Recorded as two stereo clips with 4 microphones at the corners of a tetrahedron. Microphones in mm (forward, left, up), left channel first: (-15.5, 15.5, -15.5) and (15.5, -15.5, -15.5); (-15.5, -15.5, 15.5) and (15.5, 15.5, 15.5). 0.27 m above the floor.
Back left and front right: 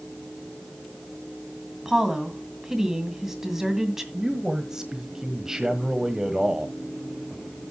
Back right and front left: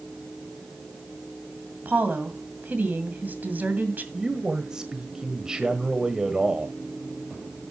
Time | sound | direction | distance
1.9 | a woman speaking | 30° left | 2 m
4.1 | a man speaking | 5° left | 1.3 m